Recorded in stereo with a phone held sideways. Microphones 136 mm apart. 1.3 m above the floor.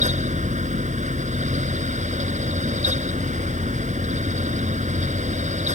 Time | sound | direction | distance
0.0 | a fan | 60° right (ahead or behind) | ?